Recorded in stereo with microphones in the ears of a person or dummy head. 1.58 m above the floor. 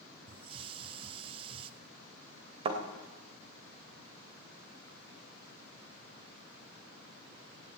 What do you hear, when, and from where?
0.3 s a hiss: 25° right (ahead or behind), 0.6 m
2.6 s a thud: 35° right (ahead or behind), 2.5 m